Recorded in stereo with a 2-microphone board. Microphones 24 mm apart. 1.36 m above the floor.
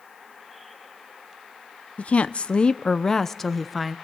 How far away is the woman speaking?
About 0.9 m.